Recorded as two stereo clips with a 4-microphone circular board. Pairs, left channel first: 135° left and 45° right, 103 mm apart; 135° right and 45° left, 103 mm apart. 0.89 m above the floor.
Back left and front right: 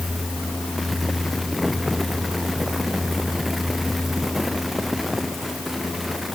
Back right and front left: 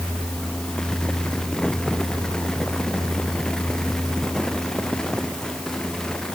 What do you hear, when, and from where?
Only background noise.